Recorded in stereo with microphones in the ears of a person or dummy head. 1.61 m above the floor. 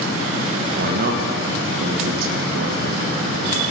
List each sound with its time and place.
0.8 s a man speaking: 60° right (ahead or behind), 1.3 m